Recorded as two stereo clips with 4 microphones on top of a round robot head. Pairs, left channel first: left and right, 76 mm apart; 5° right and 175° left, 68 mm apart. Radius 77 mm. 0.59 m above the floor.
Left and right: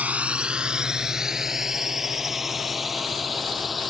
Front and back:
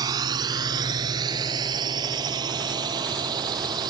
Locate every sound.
0.0 s a drone: 160° right; by 3.9 s straight behind